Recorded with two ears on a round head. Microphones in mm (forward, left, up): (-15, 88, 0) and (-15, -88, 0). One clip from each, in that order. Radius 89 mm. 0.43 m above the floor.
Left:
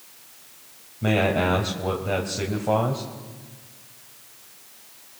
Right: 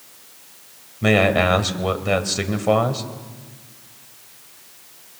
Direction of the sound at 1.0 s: 60° right (ahead or behind).